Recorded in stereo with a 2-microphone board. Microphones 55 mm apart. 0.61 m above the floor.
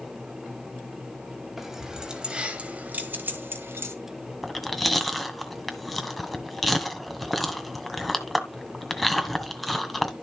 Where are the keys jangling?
5° right (ahead or behind), 3 m; by 4.0 s 55° right (ahead or behind), 2.5 m.